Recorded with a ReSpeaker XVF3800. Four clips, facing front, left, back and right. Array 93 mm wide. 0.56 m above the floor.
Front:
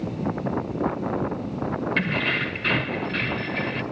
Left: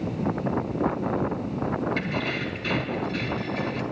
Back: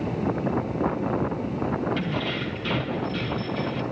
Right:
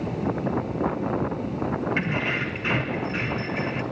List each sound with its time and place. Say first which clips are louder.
2.0 s keys jangling: right 2 dB, front 3 dB; 25° right, 1.6 m